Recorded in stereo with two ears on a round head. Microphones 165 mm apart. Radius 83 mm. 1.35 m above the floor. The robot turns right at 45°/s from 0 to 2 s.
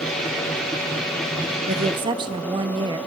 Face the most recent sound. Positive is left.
turn(degrees=-25)  # may be behind; listen again after turning